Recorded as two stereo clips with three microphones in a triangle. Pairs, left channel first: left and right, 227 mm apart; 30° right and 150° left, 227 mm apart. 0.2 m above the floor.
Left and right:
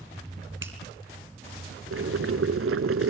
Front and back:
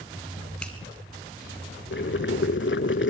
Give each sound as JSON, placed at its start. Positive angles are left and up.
{"t": 0.6, "sound": "a finger snap", "azimuth_deg": -115, "distance_m": 3.0}
{"t": 1.9, "sound": "boiling", "azimuth_deg": -65, "distance_m": 0.6}